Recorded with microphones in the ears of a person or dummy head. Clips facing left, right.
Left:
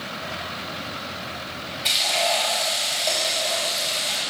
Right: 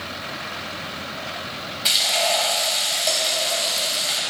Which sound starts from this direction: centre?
Frying, at 1.9 s.